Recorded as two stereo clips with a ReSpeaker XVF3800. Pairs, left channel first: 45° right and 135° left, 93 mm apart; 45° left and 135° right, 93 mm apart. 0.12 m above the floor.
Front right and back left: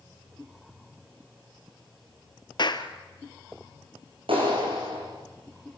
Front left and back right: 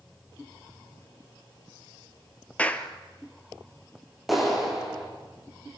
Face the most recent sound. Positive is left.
turn(degrees=135)